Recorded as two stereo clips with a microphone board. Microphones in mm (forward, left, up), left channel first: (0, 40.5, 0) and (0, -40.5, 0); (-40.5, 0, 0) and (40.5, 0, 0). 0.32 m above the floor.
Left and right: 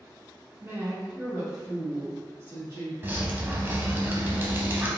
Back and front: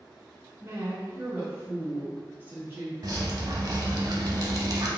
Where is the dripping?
30° right, 0.9 m.